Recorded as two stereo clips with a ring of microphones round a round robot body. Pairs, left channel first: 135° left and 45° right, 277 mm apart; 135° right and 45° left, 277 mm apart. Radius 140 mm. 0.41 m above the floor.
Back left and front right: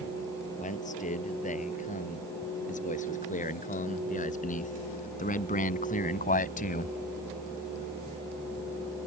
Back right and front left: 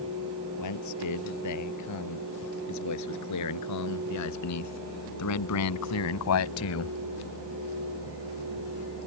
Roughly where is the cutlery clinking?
No cutlery clinking in this recording.